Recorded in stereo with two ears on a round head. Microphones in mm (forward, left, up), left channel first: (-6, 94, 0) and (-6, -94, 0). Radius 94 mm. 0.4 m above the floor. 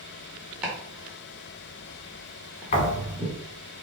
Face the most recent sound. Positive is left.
turn(degrees=40)  # may be behind; listen again after turning